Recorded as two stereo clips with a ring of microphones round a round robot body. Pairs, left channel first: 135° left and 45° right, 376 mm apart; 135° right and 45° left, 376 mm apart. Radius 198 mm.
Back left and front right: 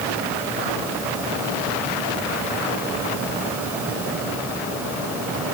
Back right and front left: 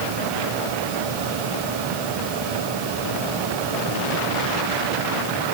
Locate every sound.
Only background noise.